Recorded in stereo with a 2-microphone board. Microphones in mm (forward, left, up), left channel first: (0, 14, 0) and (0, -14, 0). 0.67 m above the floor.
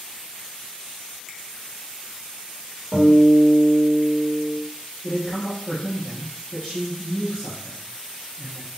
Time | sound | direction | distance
1.3 | a finger snap | 10° right (ahead or behind) | 0.5 m
2.9 | a guitar | 30° right (ahead or behind) | 1.9 m
5.0 | a man speaking | 30° left (ahead or behind) | 1.0 m